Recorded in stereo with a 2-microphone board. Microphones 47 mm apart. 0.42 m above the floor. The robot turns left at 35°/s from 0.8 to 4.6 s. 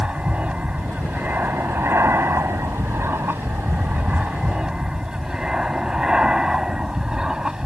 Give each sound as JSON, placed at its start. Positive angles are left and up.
{"t": 0.0, "sound": "an aircraft", "azimuth_deg": -30}